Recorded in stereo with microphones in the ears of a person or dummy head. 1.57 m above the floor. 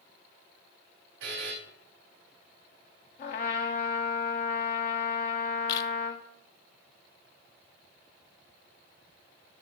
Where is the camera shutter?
35° left (ahead or behind), 0.7 m.